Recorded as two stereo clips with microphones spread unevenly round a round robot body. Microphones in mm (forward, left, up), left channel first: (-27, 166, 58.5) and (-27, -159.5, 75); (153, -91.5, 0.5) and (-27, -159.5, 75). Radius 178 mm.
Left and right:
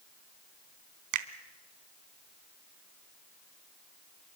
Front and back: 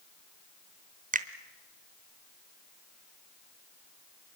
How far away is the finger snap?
About 1.3 m.